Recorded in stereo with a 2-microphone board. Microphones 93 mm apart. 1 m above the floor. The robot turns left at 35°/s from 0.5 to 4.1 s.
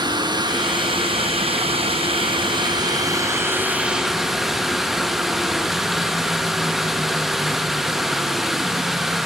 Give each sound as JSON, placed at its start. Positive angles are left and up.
{"t": 0.0, "sound": "running water", "azimuth_deg": -50, "distance_m": 1.0}